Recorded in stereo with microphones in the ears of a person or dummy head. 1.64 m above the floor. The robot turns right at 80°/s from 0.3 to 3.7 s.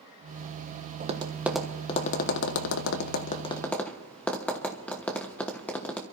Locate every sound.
1.0 s tapping: 40° right (ahead or behind), 1.1 m; by 6.0 s 10° left (ahead or behind), 1.1 m